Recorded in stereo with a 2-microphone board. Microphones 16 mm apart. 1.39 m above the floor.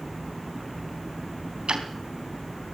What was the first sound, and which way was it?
Ticking, 65° right (ahead or behind).